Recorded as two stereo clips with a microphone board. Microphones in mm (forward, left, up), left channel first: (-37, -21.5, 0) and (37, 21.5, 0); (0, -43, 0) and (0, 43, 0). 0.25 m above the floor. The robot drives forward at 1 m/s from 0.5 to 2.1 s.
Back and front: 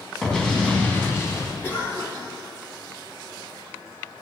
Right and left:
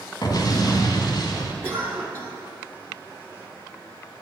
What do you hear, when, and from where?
0.2 s an explosion: 70° right, 2.0 m; by 1.5 s 110° right, 2 m
1.6 s a cough: 145° left, 3 m; by 2.3 s 150° left, 3 m